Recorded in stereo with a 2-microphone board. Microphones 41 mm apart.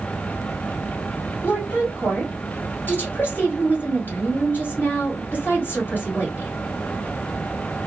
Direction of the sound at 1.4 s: 50° left (ahead or behind).